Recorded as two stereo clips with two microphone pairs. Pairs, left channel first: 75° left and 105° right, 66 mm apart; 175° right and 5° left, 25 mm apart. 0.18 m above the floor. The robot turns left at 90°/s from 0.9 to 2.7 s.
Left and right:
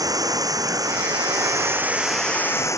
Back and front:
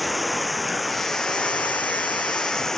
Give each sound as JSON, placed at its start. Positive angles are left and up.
{"t": 0.0, "sound": "running water", "azimuth_deg": -85}